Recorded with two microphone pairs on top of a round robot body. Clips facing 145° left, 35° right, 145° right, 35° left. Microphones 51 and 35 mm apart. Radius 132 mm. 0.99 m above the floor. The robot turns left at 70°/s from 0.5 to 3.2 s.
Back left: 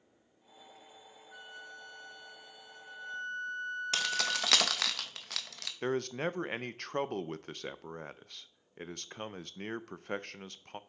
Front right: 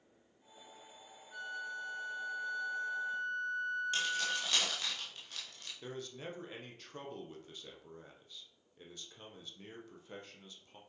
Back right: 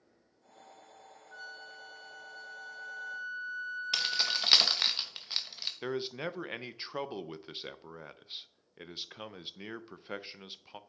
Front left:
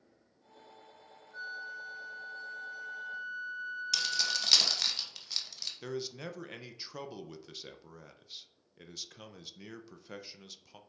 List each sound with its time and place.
1.3 s a flute: 125° right, 1.4 m; by 4.5 s 100° left, 1.4 m
3.9 s keys jangling: 150° left, 0.8 m
5.8 s a man speaking: 155° left, 0.6 m